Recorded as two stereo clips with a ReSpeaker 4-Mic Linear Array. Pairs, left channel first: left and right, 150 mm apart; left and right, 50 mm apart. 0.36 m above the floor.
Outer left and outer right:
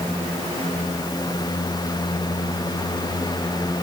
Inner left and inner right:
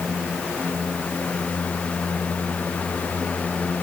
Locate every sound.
Only background noise.